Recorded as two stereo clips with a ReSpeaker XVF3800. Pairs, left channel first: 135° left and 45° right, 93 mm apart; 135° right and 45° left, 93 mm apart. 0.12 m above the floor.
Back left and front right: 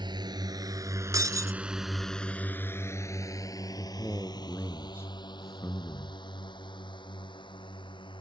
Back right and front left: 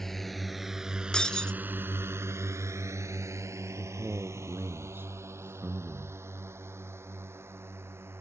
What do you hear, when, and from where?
0.0 s a drone: 50° right; by 8.2 s 110° left
1.1 s breaking glass: 60° right
3.8 s a man speaking: 95° left